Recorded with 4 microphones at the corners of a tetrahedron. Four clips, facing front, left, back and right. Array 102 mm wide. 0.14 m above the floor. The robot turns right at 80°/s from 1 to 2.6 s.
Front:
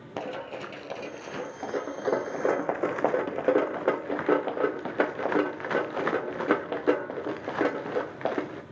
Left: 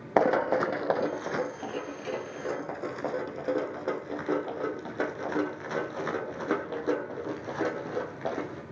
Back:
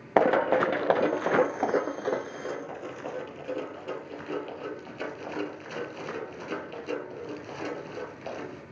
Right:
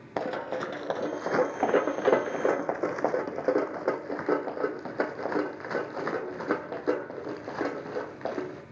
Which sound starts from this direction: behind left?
Running footsteps, at 0.2 s.